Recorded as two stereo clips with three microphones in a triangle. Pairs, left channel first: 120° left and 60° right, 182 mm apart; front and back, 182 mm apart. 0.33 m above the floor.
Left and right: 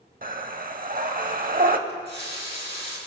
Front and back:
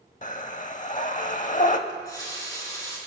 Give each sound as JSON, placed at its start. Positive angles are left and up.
{"t": 0.2, "sound": "breathing", "azimuth_deg": -35, "distance_m": 0.6}
{"t": 1.9, "sound": "a running tap", "azimuth_deg": -70, "distance_m": 2.5}